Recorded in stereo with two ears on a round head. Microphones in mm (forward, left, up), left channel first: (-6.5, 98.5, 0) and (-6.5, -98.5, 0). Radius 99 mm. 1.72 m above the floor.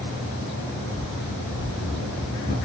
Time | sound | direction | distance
0.9 | running footsteps | 45° left (ahead or behind) | 6.5 m